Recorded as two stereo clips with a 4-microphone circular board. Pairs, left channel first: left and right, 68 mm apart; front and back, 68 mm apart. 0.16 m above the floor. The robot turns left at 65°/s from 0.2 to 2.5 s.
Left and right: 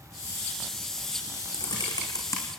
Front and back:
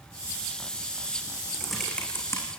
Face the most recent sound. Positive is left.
turn(degrees=40)